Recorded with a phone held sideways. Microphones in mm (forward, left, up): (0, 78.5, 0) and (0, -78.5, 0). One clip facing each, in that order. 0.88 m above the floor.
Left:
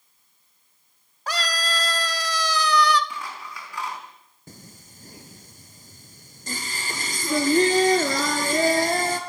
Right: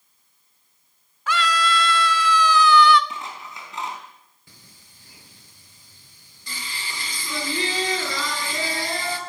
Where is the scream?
40° left (ahead or behind), 2 m.